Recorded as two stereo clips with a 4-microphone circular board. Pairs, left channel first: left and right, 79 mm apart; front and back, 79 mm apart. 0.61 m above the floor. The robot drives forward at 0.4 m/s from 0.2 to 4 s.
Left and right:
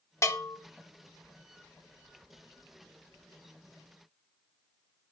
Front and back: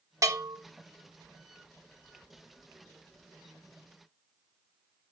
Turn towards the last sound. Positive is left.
turn(degrees=160)